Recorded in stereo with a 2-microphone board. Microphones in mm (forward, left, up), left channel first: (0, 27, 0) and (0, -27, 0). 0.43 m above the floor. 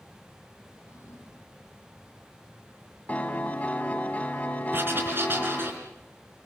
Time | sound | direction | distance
0.7 | a drawer | 65° left (ahead or behind) | 10 m
3.1 | a piano | 30° left (ahead or behind) | 2.0 m
4.7 | writing | 45° right (ahead or behind) | 3.5 m